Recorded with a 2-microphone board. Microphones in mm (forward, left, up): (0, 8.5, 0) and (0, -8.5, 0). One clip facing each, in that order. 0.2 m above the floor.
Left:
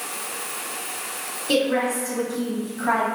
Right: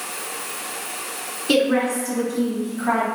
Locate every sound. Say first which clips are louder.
1.5 s a woman speaking: right 3 dB; 40° right (ahead or behind), 1.8 m; by 3.1 s 25° left (ahead or behind), 1.1 m